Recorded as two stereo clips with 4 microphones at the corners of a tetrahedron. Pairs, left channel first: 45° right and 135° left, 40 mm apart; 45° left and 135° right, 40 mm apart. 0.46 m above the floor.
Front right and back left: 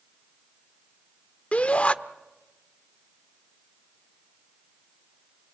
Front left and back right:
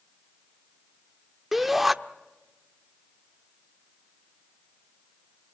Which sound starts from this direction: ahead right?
A shout, at 1.5 s.